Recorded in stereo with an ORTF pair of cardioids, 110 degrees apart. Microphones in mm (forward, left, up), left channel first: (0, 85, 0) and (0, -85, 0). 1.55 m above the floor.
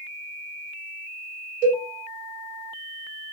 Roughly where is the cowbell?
Ahead right.